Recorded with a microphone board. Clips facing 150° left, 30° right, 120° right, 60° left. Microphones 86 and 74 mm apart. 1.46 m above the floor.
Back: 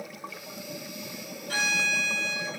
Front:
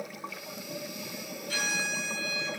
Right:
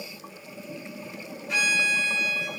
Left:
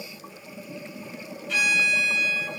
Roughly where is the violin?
Behind.